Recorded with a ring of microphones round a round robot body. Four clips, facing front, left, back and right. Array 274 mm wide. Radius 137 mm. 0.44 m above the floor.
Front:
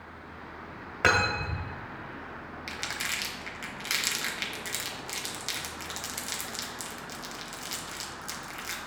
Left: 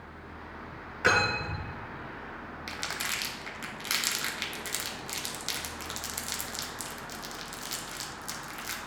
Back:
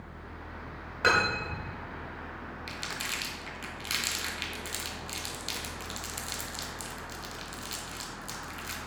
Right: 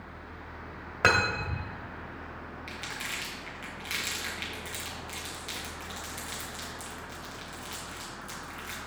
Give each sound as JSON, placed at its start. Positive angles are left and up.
{"t": 1.0, "sound": "cutlery clinking", "azimuth_deg": -75, "distance_m": 1.6}
{"t": 2.7, "sound": "crumpling", "azimuth_deg": 85, "distance_m": 1.0}